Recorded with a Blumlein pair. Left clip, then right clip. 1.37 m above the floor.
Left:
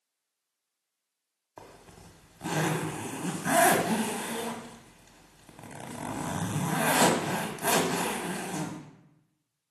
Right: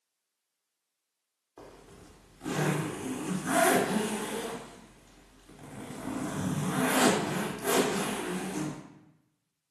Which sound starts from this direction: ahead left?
A zipper, at 1.6 s.